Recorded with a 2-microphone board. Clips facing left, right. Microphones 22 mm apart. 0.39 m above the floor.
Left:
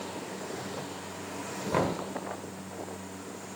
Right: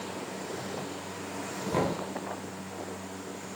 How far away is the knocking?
About 1.3 m.